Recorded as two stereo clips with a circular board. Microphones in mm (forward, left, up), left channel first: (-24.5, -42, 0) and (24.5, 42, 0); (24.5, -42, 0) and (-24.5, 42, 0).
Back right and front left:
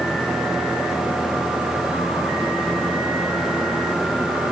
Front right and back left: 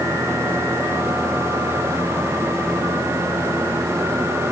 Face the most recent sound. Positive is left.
No sound to turn to.